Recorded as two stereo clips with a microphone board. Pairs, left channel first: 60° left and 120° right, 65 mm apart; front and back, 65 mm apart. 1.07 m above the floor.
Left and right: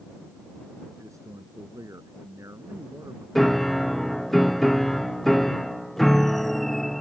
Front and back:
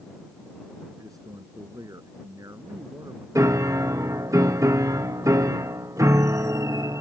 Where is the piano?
145° left.